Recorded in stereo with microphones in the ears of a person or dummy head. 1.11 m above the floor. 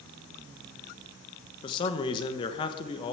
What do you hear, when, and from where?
1.6 s a man speaking: 25° left (ahead or behind), 1.2 m